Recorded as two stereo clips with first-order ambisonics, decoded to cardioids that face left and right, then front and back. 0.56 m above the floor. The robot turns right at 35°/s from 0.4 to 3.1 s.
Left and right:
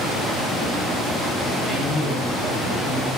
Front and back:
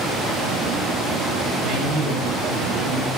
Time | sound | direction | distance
1.6 | a man speaking | 165° right | 10 m